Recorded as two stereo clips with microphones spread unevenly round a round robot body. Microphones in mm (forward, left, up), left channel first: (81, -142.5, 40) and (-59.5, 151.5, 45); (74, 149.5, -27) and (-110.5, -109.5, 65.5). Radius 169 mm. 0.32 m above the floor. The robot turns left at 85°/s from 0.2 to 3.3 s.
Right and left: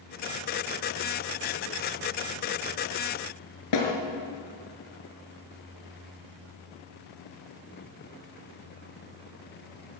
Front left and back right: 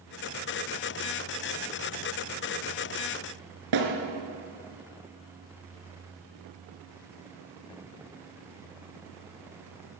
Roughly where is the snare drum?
Right.